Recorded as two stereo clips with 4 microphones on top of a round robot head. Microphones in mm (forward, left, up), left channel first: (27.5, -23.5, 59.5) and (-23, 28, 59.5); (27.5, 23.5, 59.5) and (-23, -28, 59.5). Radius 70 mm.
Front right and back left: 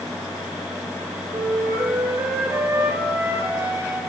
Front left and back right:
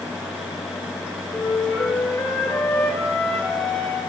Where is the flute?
100° left, 5 m.